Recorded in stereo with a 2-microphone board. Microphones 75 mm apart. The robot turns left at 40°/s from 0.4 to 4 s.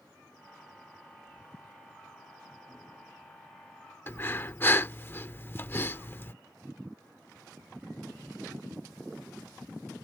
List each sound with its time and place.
4.1 s breathing: 30° left (ahead or behind)